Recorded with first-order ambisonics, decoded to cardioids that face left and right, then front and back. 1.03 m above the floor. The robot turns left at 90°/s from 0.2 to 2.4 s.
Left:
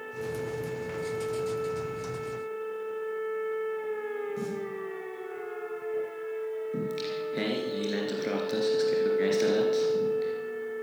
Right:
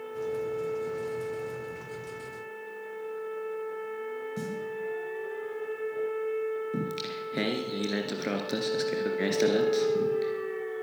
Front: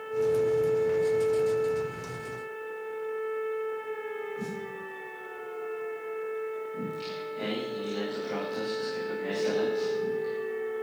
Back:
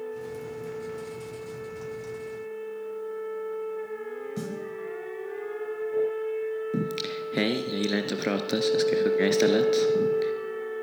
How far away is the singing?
About 2.5 m.